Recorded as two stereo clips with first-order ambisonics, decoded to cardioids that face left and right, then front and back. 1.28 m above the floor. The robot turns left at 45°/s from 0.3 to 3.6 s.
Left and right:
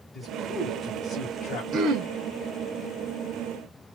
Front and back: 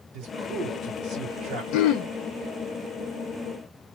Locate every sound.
0.1 s a man speaking: 175° left, 1.4 m; by 1.6 s 115° left, 1.4 m
1.7 s throat clearing: 30° right, 0.6 m; by 2.1 s 45° right, 0.6 m